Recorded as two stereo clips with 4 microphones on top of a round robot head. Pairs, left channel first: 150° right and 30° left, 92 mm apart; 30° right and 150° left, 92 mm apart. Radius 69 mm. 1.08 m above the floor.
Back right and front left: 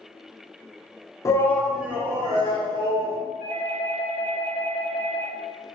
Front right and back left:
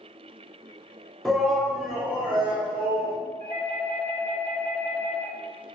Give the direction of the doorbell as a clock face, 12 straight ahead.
12 o'clock.